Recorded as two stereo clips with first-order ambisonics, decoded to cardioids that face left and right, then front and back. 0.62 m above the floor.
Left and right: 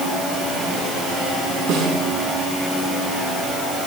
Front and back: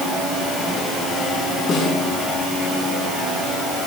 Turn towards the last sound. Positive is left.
turn(degrees=-60)